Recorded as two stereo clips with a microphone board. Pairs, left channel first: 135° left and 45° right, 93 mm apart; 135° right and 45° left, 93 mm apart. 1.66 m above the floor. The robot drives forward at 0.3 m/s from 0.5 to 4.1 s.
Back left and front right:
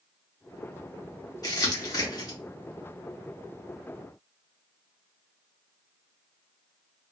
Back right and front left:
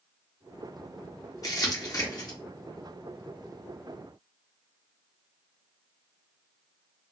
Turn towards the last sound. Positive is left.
turn(degrees=180)